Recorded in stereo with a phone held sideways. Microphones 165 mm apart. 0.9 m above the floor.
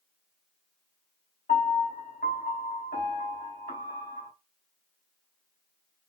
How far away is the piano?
About 1.5 m.